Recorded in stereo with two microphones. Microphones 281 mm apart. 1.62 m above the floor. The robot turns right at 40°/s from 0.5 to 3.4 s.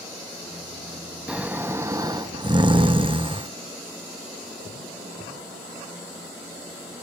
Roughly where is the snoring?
Centre.